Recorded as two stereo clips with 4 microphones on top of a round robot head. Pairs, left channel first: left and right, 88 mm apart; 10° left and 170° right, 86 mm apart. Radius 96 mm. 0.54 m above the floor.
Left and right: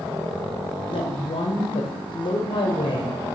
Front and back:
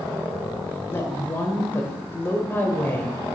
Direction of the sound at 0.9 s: 70° left.